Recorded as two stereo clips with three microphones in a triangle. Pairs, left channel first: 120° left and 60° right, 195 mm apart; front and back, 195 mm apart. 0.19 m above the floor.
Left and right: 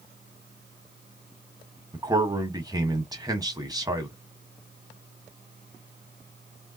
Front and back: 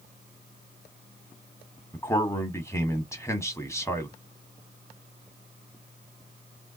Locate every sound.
1.9 s a man speaking: 45° right, 1.3 m